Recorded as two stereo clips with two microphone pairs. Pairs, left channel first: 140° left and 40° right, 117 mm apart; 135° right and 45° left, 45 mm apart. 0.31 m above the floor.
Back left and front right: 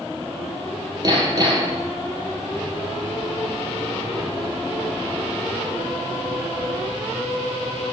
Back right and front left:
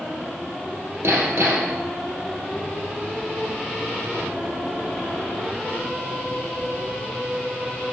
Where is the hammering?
15° left, 3.5 m.